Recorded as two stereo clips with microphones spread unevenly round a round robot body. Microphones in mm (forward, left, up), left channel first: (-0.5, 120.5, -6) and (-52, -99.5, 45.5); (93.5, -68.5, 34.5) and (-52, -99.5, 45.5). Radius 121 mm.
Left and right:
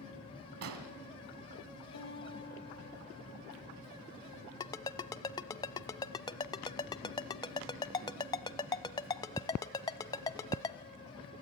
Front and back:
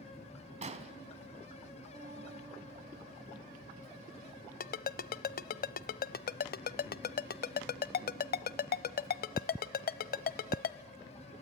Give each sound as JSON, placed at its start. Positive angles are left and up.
{"t": 0.6, "sound": "an explosion", "azimuth_deg": -130, "distance_m": 2.0}
{"t": 1.9, "sound": "a guitar", "azimuth_deg": 115, "distance_m": 9.5}
{"t": 4.6, "sound": "a ringtone", "azimuth_deg": 5, "distance_m": 0.7}